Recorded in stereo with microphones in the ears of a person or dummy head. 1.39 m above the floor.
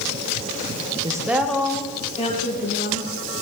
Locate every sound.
1.0 s a woman speaking: 25° right (ahead or behind), 1.4 m; by 3.1 s 50° left (ahead or behind), 2.5 m